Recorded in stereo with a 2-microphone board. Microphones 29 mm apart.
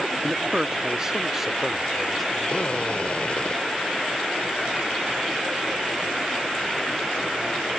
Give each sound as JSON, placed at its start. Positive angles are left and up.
{"t": 0.2, "sound": "a man speaking", "side_deg": -30}
{"t": 2.5, "sound": "a drill", "side_deg": 40}